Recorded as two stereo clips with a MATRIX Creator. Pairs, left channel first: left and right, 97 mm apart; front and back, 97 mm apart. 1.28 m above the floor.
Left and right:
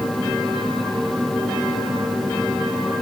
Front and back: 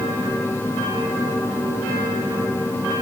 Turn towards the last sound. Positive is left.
No sound to turn to.